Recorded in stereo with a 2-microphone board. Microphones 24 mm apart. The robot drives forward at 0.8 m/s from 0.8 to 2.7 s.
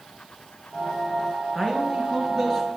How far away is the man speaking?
About 2.5 m.